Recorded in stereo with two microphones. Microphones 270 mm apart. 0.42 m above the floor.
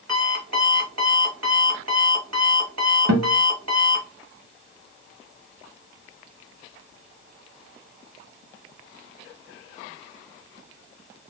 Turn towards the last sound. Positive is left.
turn(degrees=-80)